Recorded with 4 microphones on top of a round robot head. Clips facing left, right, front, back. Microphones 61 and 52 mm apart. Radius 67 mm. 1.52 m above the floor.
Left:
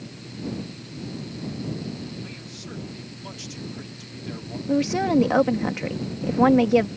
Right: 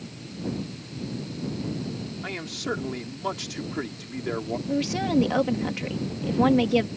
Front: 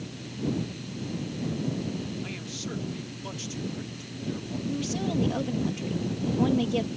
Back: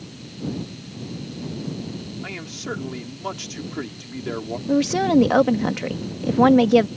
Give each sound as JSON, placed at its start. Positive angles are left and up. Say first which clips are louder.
{"t": 2.2, "sound": "a man speaking", "louder": "right 8 dB, back 5 dB", "azimuth_deg": -125}
{"t": 4.7, "sound": "a woman speaking", "louder": "left 5 dB, back 13 dB", "azimuth_deg": 160}